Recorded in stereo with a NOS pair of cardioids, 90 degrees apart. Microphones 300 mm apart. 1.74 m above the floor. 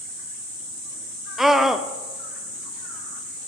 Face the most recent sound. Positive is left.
turn(degrees=0)